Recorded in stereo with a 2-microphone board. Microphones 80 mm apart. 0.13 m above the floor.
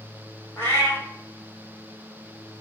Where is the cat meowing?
25° left (ahead or behind), 1.3 m.